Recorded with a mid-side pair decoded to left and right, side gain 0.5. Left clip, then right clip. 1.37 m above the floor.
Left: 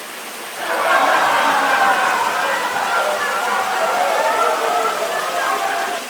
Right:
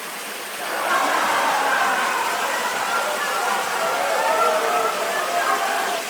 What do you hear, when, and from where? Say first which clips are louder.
0.6 s laughter: left 6 dB; 35° left, 5.5 m; by 6.0 s 10° left, 3.5 m